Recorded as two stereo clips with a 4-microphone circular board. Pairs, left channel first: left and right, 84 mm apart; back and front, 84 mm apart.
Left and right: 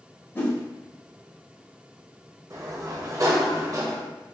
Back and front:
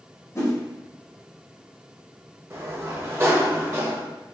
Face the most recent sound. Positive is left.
turn(degrees=-50)